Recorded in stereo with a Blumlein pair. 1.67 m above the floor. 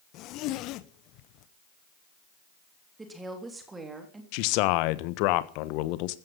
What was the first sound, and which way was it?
A zipper, 40° left.